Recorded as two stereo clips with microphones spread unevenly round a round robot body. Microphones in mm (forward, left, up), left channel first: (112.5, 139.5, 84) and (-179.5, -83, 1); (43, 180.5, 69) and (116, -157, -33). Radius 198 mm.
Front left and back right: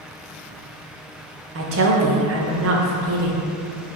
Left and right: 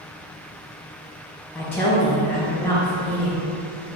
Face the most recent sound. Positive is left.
turn(degrees=-160)